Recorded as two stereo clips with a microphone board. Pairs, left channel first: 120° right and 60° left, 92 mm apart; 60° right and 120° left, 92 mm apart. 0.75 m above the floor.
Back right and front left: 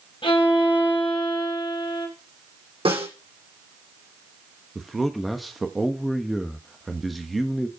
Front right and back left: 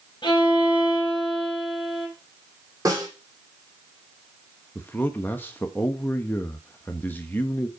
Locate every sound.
0.2 s a violin: 95° right, 4 m
2.9 s a snare drum: 65° left, 6.5 m
4.8 s a man speaking: 30° right, 1.1 m